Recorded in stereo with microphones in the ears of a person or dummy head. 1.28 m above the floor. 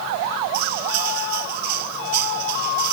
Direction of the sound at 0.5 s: 55° right (ahead or behind).